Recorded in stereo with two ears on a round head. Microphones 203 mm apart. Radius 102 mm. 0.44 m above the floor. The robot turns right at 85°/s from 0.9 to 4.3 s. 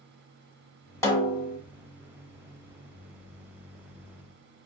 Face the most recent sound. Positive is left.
turn(degrees=-65)